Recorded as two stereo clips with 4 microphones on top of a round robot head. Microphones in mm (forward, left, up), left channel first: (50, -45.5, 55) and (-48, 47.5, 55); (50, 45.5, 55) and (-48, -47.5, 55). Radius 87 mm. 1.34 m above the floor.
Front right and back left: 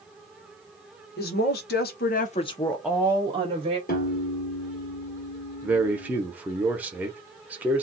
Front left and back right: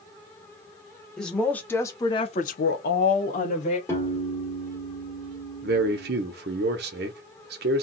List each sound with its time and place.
1.2 s a woman speaking: 45° right, 1.2 m; by 3.8 s 90° left, 1.0 m
3.9 s a piano: 30° right, 1.4 m
5.6 s a man speaking: 145° right, 0.8 m